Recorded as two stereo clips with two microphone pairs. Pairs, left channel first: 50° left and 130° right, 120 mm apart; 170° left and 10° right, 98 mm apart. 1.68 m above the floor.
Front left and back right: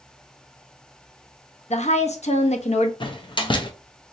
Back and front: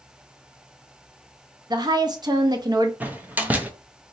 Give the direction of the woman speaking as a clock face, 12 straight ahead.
11 o'clock.